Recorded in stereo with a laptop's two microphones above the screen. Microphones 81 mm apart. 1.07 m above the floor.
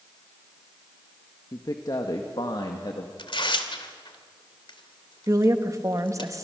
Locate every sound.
1.5 s a man speaking: 45° left (ahead or behind), 1.7 m; by 3.1 s 65° left (ahead or behind), 2 m
3.2 s tearing paper: 75° left (ahead or behind), 1.8 m
5.3 s a woman speaking: 40° right (ahead or behind), 1.3 m